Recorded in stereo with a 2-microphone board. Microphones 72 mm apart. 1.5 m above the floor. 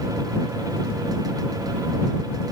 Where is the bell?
I don't hear a bell.